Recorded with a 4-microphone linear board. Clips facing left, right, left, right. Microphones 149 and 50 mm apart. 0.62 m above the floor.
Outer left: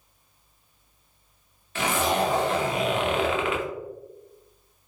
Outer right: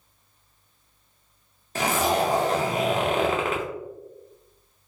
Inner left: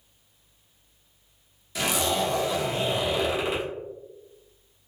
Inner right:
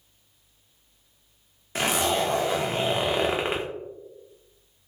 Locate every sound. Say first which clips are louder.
1.8 s a zipper: outer right 1 dB, inner right 2 dB; 35° right (ahead or behind), 0.6 m